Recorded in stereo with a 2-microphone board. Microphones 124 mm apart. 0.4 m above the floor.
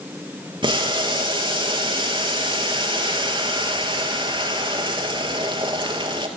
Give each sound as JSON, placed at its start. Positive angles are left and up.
{"t": 0.6, "sound": "boiling", "side_deg": -40, "distance_m": 1.4}